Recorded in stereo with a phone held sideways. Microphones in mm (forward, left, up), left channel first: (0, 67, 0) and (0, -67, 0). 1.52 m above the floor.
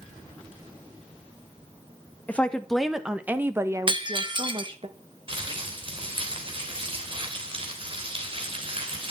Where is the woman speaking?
10° left (ahead or behind), 1.5 m; by 4.9 s 45° right (ahead or behind), 1.7 m.